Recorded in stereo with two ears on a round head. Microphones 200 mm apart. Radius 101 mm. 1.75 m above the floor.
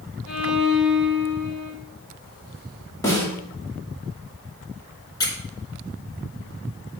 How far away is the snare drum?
About 2 m.